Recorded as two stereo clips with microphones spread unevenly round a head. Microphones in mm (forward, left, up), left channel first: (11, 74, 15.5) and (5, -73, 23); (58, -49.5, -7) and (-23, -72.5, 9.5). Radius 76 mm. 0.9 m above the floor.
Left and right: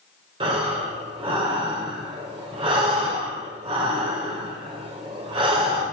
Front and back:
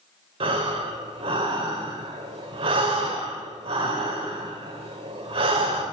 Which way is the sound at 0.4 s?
150° right.